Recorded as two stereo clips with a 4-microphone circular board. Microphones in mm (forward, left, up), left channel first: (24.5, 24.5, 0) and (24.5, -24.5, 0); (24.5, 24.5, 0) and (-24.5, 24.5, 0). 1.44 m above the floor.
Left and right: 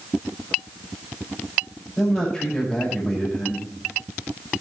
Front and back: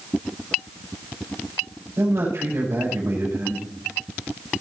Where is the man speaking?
170° left, 6 m.